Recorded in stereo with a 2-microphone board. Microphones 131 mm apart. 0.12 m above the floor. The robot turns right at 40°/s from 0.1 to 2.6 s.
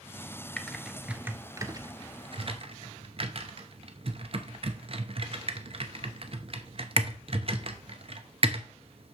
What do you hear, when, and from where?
0.6 s typing on a keyboard: 10° left (ahead or behind), 0.8 m; by 9.2 s 45° right (ahead or behind), 0.8 m